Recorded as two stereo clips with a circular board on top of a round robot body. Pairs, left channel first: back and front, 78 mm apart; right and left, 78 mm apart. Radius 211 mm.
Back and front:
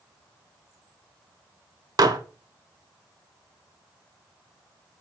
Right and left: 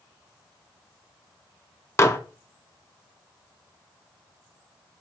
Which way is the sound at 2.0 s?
35° right.